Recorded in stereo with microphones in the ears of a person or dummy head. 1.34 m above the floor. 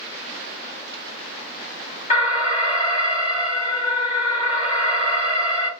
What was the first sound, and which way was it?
An alarm, 40° left (ahead or behind).